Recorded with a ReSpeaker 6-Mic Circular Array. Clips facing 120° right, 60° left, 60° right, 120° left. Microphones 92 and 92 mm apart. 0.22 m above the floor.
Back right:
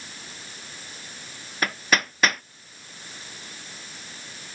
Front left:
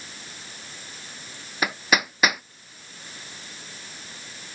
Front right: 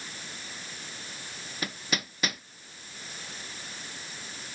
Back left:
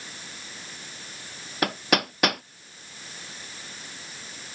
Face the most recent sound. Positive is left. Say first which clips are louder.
# front left 1 dB, back left 10 dB
turn(degrees=140)